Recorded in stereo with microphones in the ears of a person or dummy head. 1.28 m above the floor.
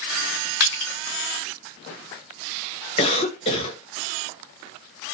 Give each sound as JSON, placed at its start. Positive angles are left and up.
{"t": 0.6, "sound": "crushing", "side_deg": 40, "distance_m": 1.8}
{"t": 3.0, "sound": "a cough", "side_deg": 30, "distance_m": 1.0}